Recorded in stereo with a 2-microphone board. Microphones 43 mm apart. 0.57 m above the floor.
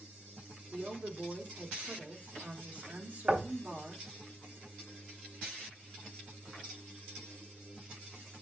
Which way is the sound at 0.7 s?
35° right (ahead or behind).